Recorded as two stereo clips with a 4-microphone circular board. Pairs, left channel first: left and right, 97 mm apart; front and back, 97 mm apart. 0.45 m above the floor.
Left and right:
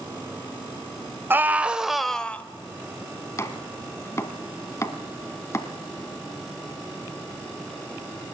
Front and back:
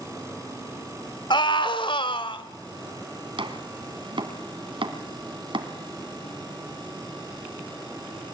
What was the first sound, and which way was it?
A scream, 25° right.